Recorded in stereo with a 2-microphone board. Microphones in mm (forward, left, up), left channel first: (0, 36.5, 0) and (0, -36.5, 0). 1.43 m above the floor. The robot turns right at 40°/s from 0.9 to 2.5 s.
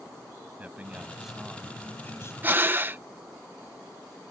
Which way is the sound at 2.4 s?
25° right (ahead or behind).